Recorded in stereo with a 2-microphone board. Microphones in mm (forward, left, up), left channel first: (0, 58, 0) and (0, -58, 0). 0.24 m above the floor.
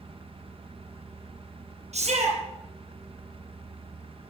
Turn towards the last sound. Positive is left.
turn(degrees=-70)  # may be behind; listen again after turning